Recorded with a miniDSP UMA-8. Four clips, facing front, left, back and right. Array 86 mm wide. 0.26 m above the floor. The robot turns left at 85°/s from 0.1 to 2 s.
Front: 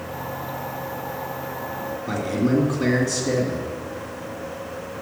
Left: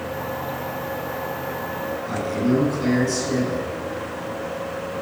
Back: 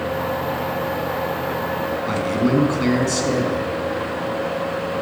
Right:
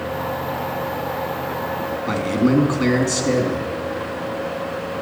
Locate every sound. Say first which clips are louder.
2.1 s a man speaking: right 4 dB, back 1 dB; 125° right, 2 m